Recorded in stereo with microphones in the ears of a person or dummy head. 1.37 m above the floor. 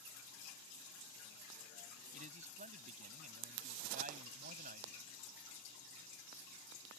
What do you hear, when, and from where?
2.1 s a man speaking: 35° right (ahead or behind); by 5.1 s 40° right (ahead or behind)